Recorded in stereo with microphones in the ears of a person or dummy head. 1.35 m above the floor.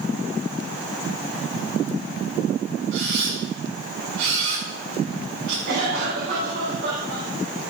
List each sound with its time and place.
2.9 s a camera shutter: 85° right, 8 m
5.7 s a cough: 80° right, 8.5 m